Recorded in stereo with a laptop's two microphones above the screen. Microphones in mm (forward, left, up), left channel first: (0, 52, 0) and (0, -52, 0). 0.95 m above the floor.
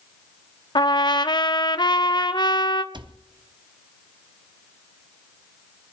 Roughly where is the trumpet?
Left.